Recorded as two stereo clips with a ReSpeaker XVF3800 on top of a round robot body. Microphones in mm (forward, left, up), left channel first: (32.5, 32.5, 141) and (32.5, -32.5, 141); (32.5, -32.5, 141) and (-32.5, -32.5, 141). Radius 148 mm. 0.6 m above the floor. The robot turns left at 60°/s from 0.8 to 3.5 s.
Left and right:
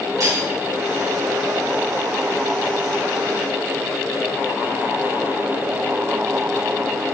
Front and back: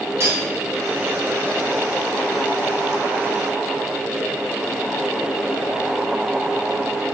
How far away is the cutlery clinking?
About 3 m.